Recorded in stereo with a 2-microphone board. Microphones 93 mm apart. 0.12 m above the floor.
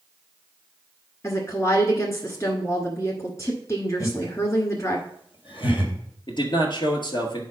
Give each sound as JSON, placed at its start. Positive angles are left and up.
{"t": 1.2, "sound": "a woman speaking", "side_deg": 30, "distance_m": 1.3}
{"t": 4.0, "sound": "laughter", "side_deg": 60, "distance_m": 3.0}
{"t": 6.3, "sound": "a man speaking", "side_deg": 55, "distance_m": 1.9}